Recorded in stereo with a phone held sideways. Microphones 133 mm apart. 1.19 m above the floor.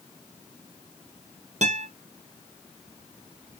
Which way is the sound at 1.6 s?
60° right (ahead or behind).